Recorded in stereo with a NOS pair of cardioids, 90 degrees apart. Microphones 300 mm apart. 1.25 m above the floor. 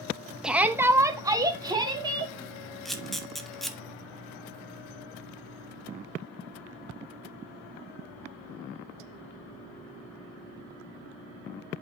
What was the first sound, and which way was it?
A shout, 5° right.